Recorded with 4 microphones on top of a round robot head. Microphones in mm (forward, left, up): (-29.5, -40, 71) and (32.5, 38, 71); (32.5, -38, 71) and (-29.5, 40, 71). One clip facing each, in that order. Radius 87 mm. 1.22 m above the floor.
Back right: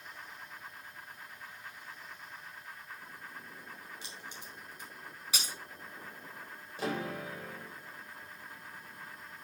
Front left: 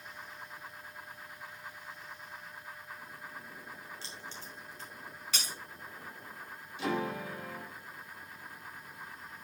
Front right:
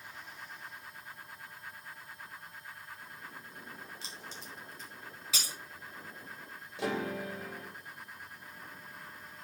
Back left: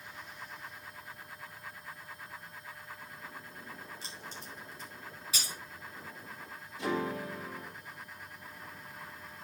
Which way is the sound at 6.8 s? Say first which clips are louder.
Front left 2 dB, back left 1 dB; 75° right.